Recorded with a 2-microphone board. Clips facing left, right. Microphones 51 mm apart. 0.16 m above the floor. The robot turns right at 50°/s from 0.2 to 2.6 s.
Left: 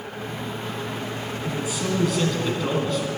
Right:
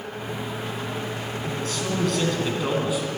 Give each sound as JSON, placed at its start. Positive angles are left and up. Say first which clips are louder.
{"t": 1.4, "sound": "a man speaking", "louder": "left 2 dB", "side_deg": 15, "distance_m": 1.3}